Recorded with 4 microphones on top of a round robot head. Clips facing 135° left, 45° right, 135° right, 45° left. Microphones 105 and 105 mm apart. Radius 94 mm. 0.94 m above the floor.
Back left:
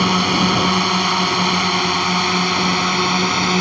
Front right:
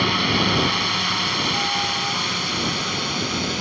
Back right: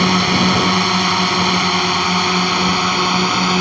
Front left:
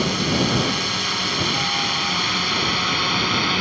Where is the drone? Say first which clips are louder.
Back left 5 dB, back right 6 dB; 170° right; by 3.6 s 170° left.